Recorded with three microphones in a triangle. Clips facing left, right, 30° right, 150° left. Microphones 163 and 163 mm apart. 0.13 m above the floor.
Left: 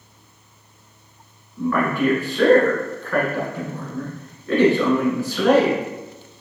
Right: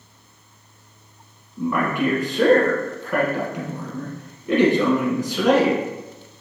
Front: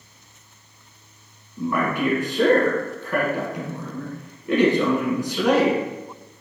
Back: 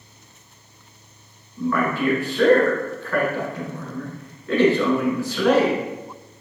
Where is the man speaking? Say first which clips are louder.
Left 1 dB, back 1 dB; 60° right, 1.1 m.